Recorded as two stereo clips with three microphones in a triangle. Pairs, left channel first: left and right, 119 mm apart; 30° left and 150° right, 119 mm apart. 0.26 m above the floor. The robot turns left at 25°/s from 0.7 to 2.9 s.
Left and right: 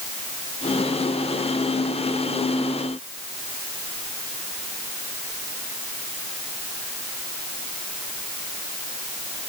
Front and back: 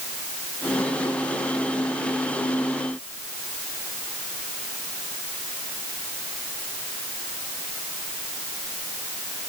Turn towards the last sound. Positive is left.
No sound to turn to.